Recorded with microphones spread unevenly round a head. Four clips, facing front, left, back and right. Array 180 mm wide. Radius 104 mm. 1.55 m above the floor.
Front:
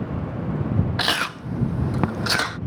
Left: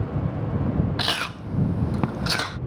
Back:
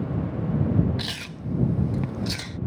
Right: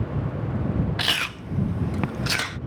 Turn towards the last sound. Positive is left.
turn(degrees=15)